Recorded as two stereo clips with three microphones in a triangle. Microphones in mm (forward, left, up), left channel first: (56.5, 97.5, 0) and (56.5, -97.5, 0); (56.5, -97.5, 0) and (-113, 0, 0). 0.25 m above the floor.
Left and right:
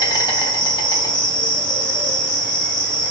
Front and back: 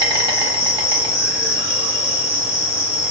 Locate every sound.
0.0 s an insect: 125° left, 1.0 m